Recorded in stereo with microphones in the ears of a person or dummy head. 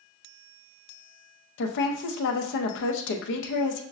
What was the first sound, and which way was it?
A woman speaking, 60° left (ahead or behind).